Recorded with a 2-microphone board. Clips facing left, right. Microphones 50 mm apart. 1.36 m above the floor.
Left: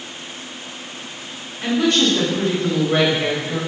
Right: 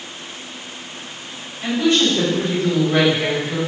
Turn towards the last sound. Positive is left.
turn(degrees=15)  # may be behind; listen again after turning